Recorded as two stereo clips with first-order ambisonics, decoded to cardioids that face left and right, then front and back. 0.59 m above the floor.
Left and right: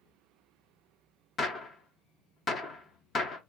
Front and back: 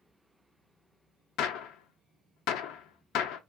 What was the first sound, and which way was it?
A gunshot, 25° left.